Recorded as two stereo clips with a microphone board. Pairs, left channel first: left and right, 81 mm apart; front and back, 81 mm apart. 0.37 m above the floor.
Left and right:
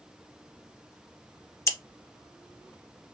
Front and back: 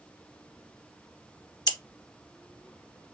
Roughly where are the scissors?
Ahead left.